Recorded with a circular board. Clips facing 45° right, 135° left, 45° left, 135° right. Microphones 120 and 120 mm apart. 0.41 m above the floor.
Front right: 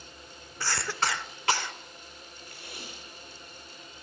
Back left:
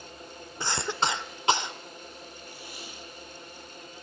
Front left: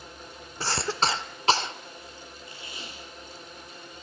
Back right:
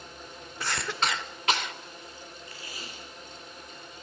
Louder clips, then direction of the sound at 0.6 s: Back left 2 dB, front left 3 dB; 80° left.